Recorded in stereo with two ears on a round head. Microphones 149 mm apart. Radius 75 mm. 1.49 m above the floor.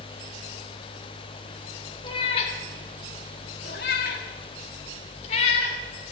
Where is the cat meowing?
30° left (ahead or behind), 2 m; by 5.8 s 40° left (ahead or behind), 3.5 m.